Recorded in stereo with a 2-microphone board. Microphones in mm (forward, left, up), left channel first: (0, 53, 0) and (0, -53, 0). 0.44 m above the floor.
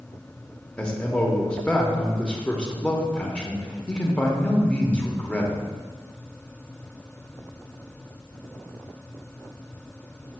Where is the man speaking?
10° left (ahead or behind), 0.9 m.